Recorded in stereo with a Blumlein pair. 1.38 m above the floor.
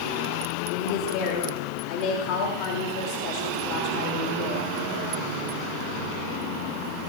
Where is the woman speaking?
35° left, 3 m.